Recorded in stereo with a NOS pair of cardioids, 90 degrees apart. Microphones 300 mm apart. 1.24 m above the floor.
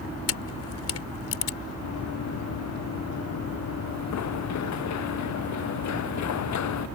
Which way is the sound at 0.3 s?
55° left.